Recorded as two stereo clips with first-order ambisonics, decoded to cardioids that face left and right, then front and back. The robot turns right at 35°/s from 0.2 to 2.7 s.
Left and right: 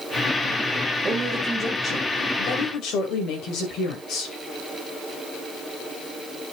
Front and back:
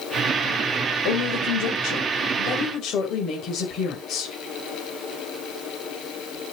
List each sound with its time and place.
1.1 s a woman speaking: 10° right, 2.5 m; by 4.3 s 50° left, 2.5 m